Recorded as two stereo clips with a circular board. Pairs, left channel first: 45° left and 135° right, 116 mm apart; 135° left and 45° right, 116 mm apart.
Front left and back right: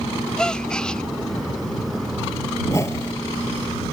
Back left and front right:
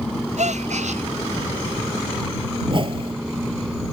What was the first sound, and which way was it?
A gasp, 40° right.